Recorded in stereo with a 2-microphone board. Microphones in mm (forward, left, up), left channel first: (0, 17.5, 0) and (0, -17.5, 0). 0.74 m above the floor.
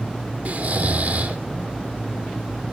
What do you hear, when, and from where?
0.5 s snoring: 60° right (ahead or behind), 2 m